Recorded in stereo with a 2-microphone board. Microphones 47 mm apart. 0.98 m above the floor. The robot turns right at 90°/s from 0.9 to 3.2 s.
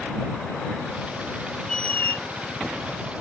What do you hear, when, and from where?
1.7 s a squeak: 20° left; by 2.2 s 70° left